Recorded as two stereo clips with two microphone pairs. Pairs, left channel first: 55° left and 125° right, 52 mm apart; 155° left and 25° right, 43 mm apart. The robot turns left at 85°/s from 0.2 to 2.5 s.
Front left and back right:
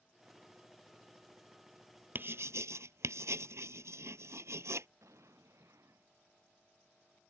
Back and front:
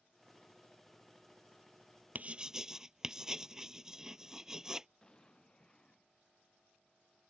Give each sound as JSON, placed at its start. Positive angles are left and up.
{"t": 2.1, "sound": "writing", "azimuth_deg": -80}
{"t": 5.0, "sound": "an explosion", "azimuth_deg": -135}